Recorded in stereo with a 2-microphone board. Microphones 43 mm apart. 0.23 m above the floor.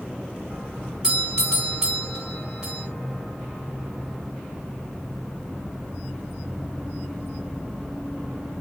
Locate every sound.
1.0 s a doorbell: 15° right (ahead or behind), 2 m